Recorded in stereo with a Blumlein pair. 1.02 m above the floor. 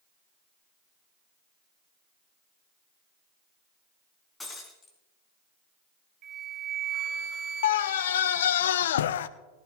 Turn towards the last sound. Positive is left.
turn(degrees=60)